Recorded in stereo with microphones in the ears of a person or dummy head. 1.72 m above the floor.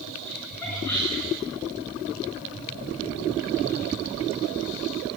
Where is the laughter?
5° left (ahead or behind), 7 m.